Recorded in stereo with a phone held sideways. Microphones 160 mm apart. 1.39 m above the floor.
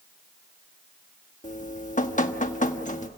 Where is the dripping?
55° left (ahead or behind), 1.3 m.